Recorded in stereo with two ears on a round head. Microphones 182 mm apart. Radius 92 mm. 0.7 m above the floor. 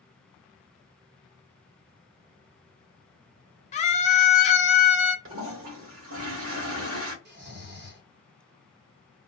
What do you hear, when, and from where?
3.7 s a scream: 35° left (ahead or behind), 0.7 m
5.2 s a toilet flushing: 75° right (ahead or behind), 1.1 m
7.2 s snoring: 60° right (ahead or behind), 1.2 m